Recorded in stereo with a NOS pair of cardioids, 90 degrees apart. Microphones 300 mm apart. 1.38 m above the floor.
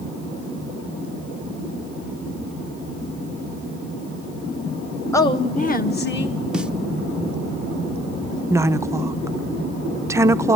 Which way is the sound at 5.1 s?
10° left.